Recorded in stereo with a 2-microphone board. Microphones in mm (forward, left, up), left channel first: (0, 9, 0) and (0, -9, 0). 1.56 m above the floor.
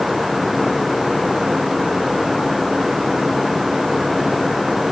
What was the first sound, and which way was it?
Only background noise.